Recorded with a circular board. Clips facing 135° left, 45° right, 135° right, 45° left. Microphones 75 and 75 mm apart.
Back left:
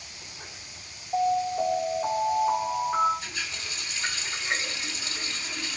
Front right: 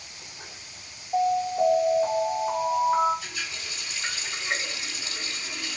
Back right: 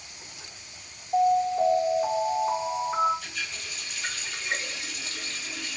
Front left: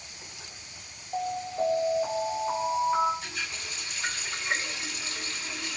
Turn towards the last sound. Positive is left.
turn(degrees=85)